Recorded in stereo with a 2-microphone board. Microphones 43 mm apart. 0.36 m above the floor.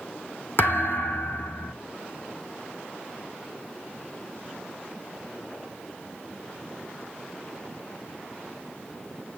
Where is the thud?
55° left (ahead or behind), 1.1 m.